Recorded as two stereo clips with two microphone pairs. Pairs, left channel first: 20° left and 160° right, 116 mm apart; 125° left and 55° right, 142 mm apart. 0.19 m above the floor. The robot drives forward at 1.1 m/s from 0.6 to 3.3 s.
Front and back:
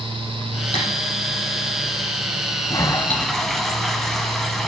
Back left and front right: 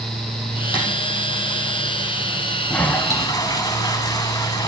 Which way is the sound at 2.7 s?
45° left.